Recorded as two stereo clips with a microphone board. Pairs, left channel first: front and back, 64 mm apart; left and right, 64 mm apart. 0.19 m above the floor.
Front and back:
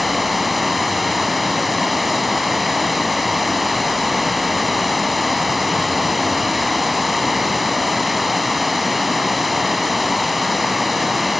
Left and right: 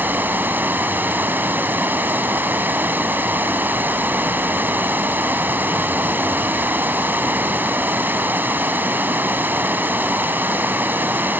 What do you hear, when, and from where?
0.0 s running water: 90° right, 1.1 m